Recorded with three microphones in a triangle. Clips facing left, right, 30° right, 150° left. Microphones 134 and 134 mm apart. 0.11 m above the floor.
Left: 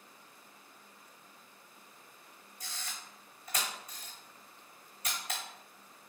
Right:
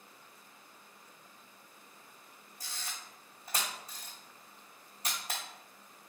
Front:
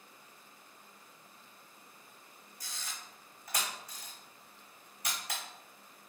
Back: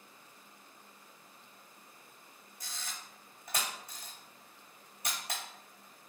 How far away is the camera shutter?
About 1.8 m.